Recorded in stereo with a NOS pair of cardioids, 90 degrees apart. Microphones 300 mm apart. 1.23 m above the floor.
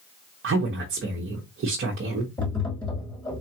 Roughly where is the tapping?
Ahead.